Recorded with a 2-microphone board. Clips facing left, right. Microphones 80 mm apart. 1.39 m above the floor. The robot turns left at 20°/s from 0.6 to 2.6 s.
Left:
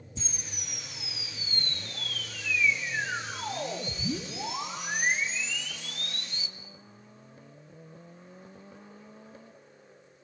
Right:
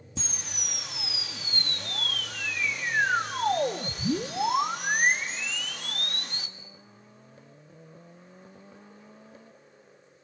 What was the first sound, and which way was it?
A camera shutter, 80° right.